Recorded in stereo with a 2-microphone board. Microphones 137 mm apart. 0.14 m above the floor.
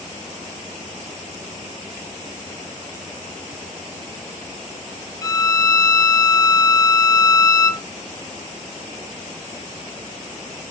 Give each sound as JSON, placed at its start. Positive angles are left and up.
{"t": 5.2, "sound": "a violin", "side_deg": 25, "distance_m": 0.7}